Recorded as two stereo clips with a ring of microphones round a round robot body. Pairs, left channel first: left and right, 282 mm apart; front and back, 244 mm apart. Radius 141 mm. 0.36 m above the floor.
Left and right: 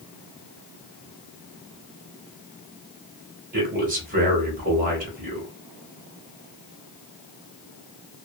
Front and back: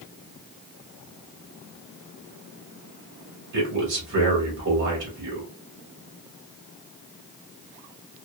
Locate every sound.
3.5 s a man speaking: 145° right, 1.5 m